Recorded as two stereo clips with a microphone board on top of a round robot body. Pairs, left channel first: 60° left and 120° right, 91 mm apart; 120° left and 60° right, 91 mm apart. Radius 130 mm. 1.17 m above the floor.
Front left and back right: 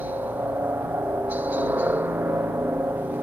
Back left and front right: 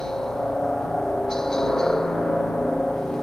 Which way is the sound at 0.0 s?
160° right.